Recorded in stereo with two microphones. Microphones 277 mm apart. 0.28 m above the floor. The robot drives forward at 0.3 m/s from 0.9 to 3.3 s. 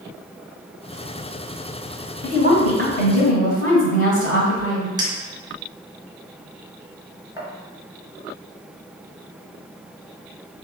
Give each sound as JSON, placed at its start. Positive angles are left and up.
{"t": 2.2, "sound": "a woman speaking", "side_deg": 55, "distance_m": 1.7}
{"t": 5.0, "sound": "a clink", "side_deg": -15, "distance_m": 1.2}